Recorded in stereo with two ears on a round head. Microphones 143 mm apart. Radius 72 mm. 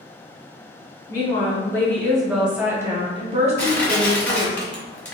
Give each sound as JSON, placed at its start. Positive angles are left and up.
{"t": 1.1, "sound": "a woman speaking", "side_deg": 25, "distance_m": 1.3}
{"t": 3.6, "sound": "crushing", "side_deg": 10, "distance_m": 0.8}